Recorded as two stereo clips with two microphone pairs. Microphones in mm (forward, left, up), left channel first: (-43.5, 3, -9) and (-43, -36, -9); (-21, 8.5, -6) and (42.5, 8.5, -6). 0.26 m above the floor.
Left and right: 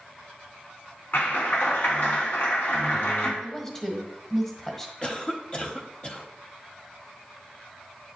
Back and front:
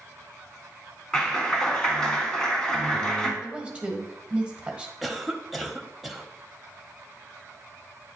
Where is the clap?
105° left, 1.7 m.